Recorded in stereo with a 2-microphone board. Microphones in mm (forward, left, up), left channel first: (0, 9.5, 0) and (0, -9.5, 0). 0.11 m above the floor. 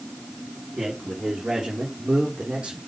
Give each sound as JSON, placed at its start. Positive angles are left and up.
{"t": 0.8, "sound": "a man speaking", "side_deg": -40, "distance_m": 5.5}